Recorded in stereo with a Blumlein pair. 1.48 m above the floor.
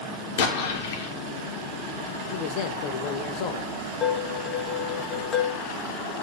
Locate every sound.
0.4 s an explosion: 60° left, 1.8 m
2.3 s a man speaking: 45° left, 1.6 m
4.0 s dishes clattering: 20° left, 1.4 m